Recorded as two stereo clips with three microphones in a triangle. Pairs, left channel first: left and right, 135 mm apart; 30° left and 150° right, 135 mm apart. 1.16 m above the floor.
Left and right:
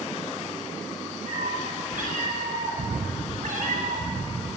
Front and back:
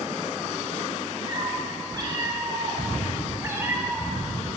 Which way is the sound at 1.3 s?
95° right.